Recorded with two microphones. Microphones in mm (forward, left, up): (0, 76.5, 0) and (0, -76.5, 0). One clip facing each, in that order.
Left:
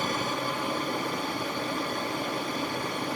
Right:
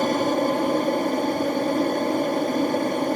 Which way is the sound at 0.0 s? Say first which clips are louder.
Right 10 dB; 45° right (ahead or behind).